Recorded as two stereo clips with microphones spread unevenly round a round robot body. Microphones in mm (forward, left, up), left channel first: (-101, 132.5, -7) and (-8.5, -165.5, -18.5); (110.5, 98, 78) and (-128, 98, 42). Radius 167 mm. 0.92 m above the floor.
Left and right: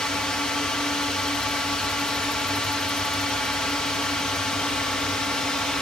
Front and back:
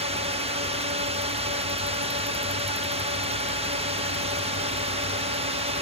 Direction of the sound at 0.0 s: 165° right.